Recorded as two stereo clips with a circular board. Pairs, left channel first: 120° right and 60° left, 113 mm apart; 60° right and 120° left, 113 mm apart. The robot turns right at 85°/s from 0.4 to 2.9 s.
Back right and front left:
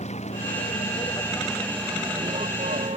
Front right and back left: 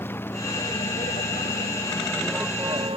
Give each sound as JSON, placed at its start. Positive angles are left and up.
{"t": 0.0, "sound": "a vehicle", "azimuth_deg": -130}